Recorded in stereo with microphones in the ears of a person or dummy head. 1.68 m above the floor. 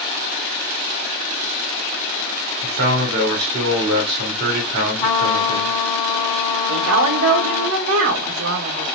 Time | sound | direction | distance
2.6 | a man speaking | 55° right (ahead or behind) | 1.3 m
5.0 | a trumpet | 20° left (ahead or behind) | 3 m
6.7 | a woman speaking | 65° right (ahead or behind) | 0.9 m